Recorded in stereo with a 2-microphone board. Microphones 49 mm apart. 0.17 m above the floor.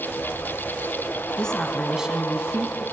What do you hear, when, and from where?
1.4 s a woman speaking: 20° left (ahead or behind), 1.3 m; by 2.9 s 45° right (ahead or behind), 1.7 m